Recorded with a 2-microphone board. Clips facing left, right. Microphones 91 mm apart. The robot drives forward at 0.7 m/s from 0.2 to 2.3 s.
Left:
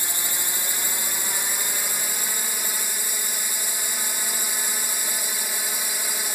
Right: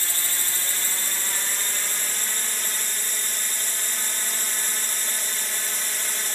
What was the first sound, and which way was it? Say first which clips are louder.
A drone: left 1 dB; 15° left (ahead or behind).